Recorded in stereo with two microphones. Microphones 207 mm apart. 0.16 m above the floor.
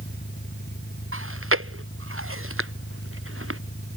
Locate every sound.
0.0 s an engine running: 55° left (ahead or behind)
1.1 s chewing: 85° right